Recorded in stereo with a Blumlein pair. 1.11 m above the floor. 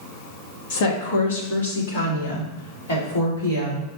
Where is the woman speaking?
55° left, 1.2 m; by 3.9 s 75° left, 3 m.